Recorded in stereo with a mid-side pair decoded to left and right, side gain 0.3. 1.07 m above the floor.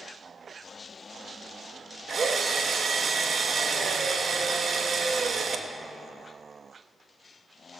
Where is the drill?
65° right, 1.1 m.